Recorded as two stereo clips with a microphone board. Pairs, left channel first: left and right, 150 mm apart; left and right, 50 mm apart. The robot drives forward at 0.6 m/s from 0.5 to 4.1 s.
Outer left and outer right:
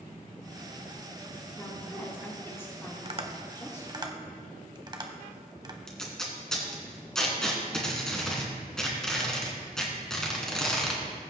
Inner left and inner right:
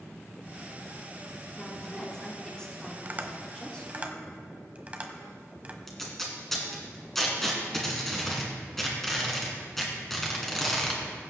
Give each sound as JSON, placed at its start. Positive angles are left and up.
{"t": 1.6, "sound": "a woman speaking", "side_deg": 15, "distance_m": 5.5}
{"t": 3.0, "sound": "tapping", "side_deg": -40, "distance_m": 1.0}
{"t": 5.9, "sound": "tape being pulled", "side_deg": 5, "distance_m": 2.5}